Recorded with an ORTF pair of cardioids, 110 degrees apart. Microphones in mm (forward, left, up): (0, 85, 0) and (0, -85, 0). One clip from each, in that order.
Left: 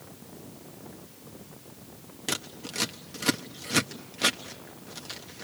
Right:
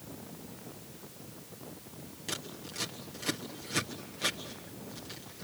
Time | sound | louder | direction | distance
2.3 | scissors | left 7 dB | 45° left | 1.3 m